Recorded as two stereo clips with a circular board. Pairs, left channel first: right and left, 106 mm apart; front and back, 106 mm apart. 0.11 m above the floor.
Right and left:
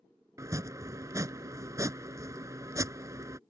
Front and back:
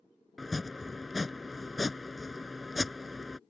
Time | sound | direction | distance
0.4 | chopping | 90° left | ?